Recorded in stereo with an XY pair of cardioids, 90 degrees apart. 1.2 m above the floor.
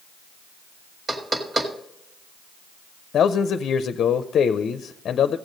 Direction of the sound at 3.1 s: 65° left.